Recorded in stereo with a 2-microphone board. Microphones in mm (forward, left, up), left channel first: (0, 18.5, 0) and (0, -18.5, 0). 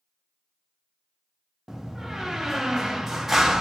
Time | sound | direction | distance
1.7 | a door slam | 10° right (ahead or behind) | 0.6 m